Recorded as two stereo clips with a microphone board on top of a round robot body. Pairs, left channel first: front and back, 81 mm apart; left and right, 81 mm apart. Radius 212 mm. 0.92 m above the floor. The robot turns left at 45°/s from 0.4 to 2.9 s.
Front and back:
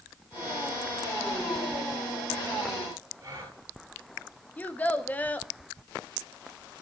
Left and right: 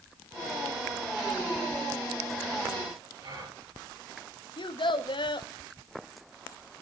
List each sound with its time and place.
3.2 s a gasp: 125° right, 9.5 m
4.6 s a child speaking: 70° left, 1.5 m